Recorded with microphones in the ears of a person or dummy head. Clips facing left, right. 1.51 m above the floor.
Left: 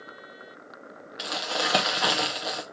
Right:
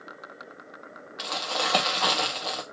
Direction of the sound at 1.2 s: 15° left (ahead or behind).